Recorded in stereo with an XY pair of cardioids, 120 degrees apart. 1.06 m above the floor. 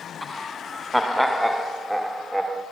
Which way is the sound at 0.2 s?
10° left.